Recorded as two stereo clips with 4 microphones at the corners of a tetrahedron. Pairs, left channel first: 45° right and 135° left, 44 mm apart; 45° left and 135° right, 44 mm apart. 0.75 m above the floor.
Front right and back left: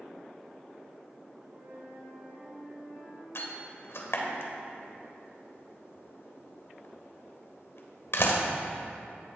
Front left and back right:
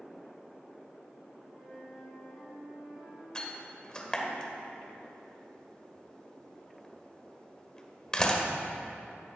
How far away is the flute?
About 4 m.